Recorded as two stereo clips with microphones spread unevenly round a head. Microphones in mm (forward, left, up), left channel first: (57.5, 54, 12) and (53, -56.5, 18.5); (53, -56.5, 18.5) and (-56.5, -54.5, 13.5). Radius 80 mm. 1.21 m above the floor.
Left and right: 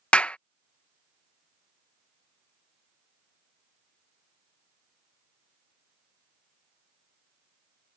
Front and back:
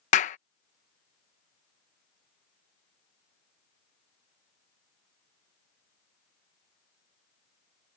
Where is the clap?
10° left.